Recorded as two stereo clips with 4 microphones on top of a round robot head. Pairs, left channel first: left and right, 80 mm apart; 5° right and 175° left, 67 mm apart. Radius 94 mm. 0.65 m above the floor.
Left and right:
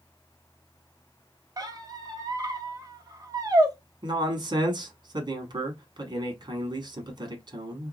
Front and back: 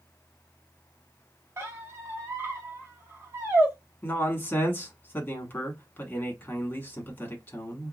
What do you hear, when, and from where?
1.6 s a squeak: 130° right, 1.1 m
4.0 s a man speaking: 70° right, 1.2 m